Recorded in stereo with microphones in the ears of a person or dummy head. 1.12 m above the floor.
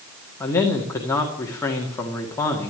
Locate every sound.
0.4 s a man speaking: 15° left (ahead or behind), 1.8 m